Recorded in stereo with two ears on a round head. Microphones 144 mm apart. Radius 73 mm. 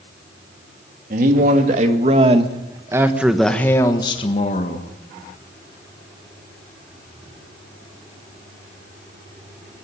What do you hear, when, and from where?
1.1 s a man speaking: 55° right (ahead or behind), 2.5 m; by 4.9 s 50° left (ahead or behind), 1.7 m